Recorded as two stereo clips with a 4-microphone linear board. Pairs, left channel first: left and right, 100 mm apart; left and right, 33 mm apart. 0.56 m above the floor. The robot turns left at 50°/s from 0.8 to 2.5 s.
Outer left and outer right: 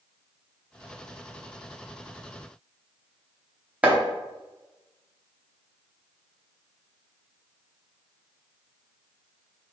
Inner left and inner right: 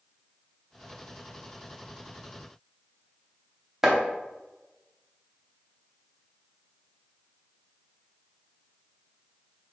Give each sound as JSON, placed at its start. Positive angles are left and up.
{"t": 3.8, "sound": "chopping", "side_deg": -15, "distance_m": 0.8}